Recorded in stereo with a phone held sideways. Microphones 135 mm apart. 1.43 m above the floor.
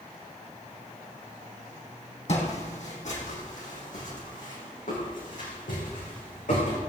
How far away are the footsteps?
About 4 m.